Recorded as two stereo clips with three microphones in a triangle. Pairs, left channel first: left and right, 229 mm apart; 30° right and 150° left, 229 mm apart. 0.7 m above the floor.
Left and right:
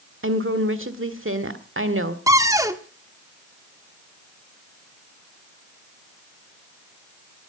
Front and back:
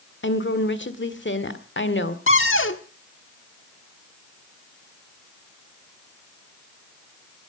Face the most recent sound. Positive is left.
turn(degrees=-15)